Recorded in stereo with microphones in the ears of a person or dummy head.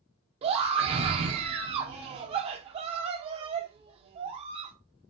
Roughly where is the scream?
Right.